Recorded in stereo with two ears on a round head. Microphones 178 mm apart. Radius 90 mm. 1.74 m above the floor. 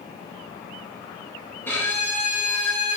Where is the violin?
10° left (ahead or behind), 0.8 m.